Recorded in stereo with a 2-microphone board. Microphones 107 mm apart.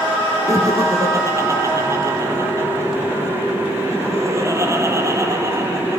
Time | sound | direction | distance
0.5 | laughter | 25° right (ahead or behind) | 3 m